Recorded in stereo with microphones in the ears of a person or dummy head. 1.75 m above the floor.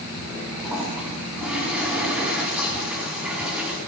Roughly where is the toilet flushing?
Centre.